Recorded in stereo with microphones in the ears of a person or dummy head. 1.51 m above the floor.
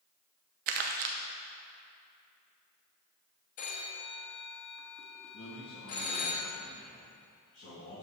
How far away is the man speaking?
About 2.5 m.